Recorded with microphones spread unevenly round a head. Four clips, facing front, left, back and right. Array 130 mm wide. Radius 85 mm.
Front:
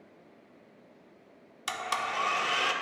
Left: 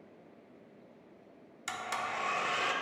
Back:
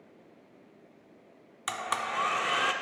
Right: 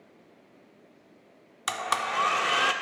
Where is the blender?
80° right, 0.5 m.